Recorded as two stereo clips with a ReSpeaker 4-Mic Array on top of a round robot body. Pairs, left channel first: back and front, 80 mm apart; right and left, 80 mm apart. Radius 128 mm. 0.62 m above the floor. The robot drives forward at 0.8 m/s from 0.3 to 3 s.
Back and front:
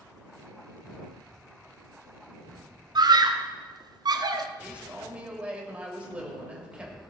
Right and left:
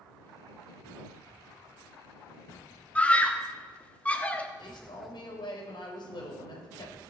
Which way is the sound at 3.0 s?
15° right.